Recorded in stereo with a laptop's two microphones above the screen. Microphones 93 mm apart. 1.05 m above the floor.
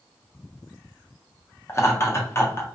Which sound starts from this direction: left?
Laughter, at 1.7 s.